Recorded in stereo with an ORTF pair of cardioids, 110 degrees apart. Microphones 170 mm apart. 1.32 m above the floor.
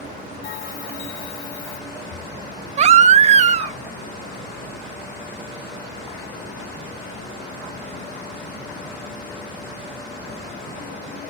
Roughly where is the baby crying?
Ahead right.